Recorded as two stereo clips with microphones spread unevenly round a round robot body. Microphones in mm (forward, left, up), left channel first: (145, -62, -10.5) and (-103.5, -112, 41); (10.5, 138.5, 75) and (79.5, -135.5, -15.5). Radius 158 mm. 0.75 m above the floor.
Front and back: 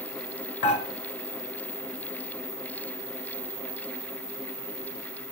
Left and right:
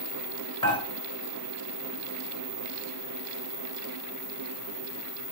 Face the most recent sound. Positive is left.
turn(degrees=30)